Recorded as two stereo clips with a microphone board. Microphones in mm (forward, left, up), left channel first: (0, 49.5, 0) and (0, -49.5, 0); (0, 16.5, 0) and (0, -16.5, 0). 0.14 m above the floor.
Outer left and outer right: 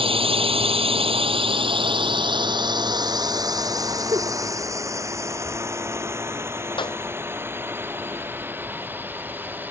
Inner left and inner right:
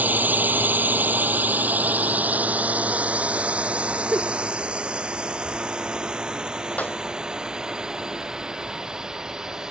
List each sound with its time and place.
0.0 s a drone: 65° right (ahead or behind); by 9.7 s 20° right (ahead or behind)
4.1 s a giggle: 45° right (ahead or behind)
6.8 s a clap: 55° left (ahead or behind)